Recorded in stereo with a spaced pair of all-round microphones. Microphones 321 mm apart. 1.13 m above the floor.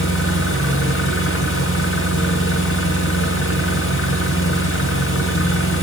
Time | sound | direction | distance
0.0 | an engine running | 40° left (ahead or behind) | 7.5 m